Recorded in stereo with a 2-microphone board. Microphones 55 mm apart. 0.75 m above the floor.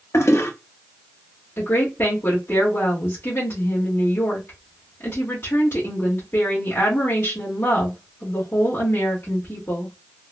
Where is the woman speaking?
50° left (ahead or behind), 1.6 m.